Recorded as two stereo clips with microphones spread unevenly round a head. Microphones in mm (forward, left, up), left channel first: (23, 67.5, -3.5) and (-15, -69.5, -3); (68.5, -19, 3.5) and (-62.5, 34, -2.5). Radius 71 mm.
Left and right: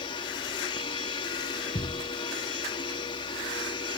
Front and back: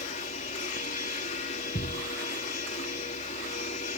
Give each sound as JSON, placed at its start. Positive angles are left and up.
{"t": 0.0, "sound": "a machine running", "azimuth_deg": 20}
{"t": 1.8, "sound": "a thud", "azimuth_deg": 15}